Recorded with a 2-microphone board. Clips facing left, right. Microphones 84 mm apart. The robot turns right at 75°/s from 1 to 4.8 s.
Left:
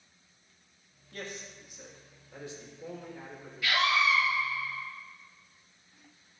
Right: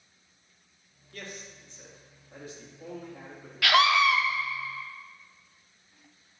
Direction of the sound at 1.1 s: 125° left.